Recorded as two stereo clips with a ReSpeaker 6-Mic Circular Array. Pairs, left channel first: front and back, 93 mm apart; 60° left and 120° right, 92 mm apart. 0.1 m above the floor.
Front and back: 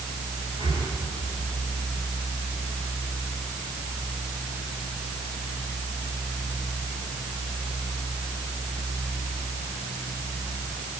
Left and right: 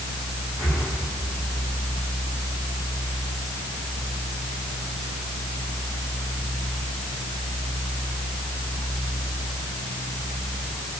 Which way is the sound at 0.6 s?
Straight behind.